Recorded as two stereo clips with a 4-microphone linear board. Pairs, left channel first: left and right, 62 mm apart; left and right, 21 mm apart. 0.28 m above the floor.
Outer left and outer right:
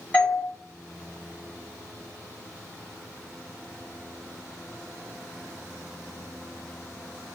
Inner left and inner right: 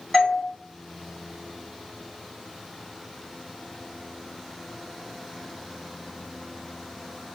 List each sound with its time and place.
0.1 s a doorbell: 20° left (ahead or behind), 1.5 m